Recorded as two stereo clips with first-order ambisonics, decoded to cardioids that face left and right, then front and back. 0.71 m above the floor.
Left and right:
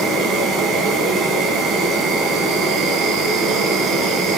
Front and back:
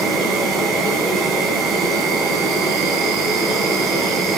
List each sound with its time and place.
0.0 s an insect: 140° right, 3 m